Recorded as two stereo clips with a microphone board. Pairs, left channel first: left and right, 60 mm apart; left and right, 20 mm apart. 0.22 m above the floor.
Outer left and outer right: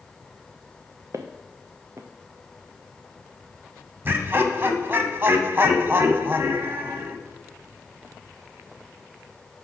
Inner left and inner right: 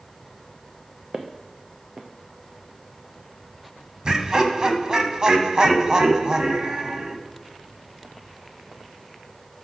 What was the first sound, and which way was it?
Footsteps, 45° right (ahead or behind).